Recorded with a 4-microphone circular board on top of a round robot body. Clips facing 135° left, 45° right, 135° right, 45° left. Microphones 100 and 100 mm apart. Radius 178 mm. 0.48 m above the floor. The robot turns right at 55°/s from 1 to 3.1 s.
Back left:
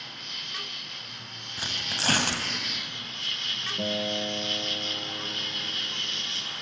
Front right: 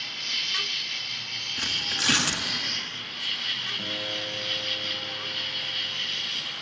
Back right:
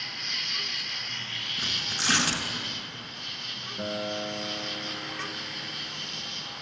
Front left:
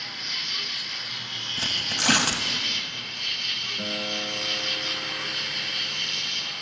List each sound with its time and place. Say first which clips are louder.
0.0 s an insect: front right 3 dB, front left 1 dB; 45° right, 0.7 m; by 6.6 s 70° left, 0.7 m
1.6 s tearing paper: even, front left 4 dB; 55° left, 1.8 m; by 2.4 s 100° left, 1.8 m
3.8 s a guitar: back left 7 dB, back right 1 dB; 150° left, 0.8 m